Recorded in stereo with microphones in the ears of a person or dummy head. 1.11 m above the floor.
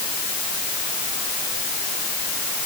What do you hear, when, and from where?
Only background noise.